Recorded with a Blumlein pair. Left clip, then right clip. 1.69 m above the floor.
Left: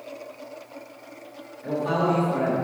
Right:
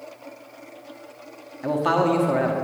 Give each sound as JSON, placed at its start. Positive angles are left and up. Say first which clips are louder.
{"t": 1.6, "sound": "a man speaking", "louder": "right 3 dB", "azimuth_deg": -55, "distance_m": 1.2}